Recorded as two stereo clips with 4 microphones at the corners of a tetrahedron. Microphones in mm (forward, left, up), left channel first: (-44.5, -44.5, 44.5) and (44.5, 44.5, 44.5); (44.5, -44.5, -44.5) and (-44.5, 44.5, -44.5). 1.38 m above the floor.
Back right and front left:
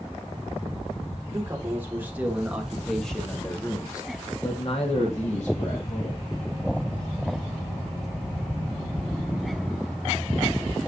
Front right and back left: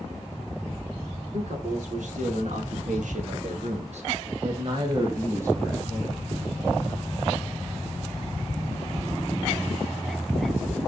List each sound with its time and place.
1.3 s a man speaking: 115° left, 3 m; by 6.2 s 140° right, 2.5 m